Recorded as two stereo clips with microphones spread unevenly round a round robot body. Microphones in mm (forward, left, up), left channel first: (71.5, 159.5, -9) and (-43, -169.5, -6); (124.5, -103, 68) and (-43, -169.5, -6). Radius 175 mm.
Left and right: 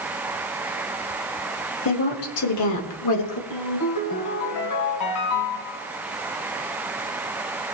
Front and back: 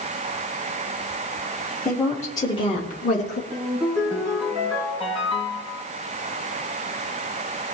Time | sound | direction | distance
1.9 | a woman speaking | 125° left | 2.5 m
3.5 | a ringtone | 110° left | 2.5 m